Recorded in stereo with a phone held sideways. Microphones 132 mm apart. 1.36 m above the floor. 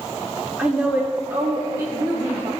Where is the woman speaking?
10° right (ahead or behind), 3 m; by 2.5 s 40° right (ahead or behind), 3 m.